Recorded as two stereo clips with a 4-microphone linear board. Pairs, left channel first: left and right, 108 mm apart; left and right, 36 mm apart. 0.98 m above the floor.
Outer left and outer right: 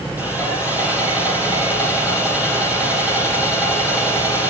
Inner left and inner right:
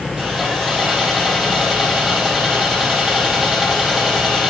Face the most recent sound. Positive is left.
turn(degrees=-15)  # may be behind; listen again after turning